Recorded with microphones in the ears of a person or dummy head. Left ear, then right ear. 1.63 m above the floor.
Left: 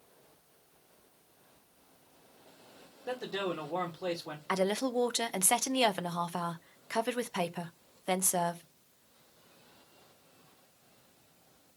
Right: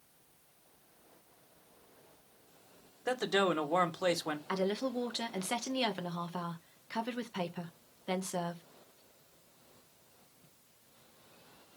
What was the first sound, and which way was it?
A man speaking, 70° right (ahead or behind).